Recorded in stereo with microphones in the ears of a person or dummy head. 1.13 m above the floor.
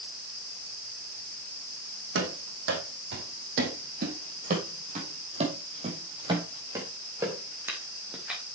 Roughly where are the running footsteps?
Right.